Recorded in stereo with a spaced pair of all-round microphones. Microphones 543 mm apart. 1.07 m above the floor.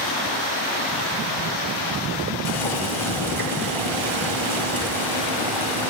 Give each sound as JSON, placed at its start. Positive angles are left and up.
{"t": 2.5, "sound": "boiling", "side_deg": 60, "distance_m": 1.8}